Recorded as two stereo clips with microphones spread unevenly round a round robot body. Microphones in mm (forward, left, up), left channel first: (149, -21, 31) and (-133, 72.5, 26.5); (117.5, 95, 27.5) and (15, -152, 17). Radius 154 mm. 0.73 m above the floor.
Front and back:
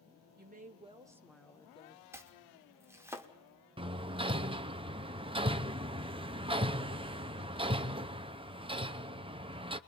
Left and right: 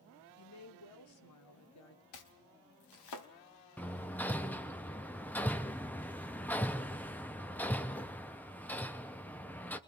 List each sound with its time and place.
0.4 s a woman speaking: 105° left, 2 m; by 2.0 s 45° left, 1.6 m
2.1 s chopping: 80° left, 1.4 m
3.8 s hammering: 145° left, 0.6 m